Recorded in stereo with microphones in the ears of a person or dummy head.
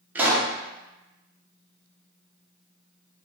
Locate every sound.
0.1 s a pop: 5° right (ahead or behind), 0.5 m